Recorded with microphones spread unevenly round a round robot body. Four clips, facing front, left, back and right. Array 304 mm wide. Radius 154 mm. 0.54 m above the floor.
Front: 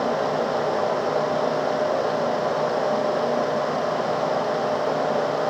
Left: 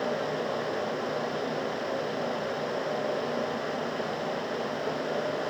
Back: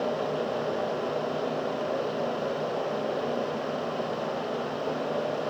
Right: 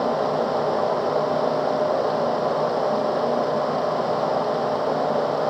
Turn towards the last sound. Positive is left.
No sound to turn to.